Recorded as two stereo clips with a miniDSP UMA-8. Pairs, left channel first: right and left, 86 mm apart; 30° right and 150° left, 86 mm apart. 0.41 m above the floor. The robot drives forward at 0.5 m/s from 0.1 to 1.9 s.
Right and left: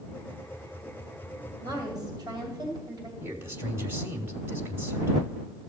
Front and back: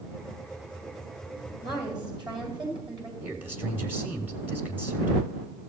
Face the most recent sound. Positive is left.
turn(degrees=115)